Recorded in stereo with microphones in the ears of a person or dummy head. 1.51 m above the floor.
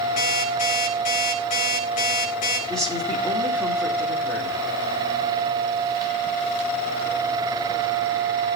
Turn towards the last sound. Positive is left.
turn(degrees=5)  # may be behind; listen again after turning